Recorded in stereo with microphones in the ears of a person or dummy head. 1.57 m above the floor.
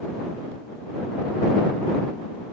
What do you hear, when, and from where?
Only background noise.